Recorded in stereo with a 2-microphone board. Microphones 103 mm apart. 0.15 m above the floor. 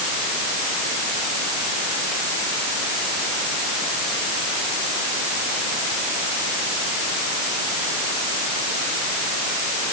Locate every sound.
Only background noise.